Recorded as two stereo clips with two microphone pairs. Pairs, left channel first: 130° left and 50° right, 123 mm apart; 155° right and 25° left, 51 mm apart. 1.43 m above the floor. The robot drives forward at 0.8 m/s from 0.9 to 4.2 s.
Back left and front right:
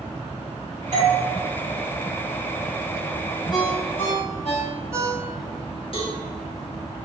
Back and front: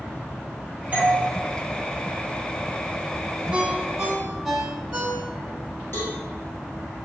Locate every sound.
0.9 s a doorbell: 30° right, 3 m
3.5 s a ringtone: 85° left, 1.7 m; by 5.6 s 105° left, 1.8 m
5.9 s a cowbell: 175° left, 1.9 m